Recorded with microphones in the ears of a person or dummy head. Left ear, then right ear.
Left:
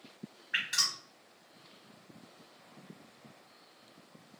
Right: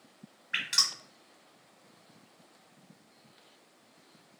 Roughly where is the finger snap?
No finger snap in this recording.